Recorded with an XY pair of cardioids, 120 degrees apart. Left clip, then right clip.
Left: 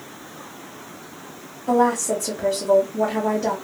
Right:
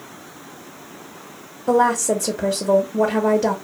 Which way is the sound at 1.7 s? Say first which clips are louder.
Right 2 dB; 40° right.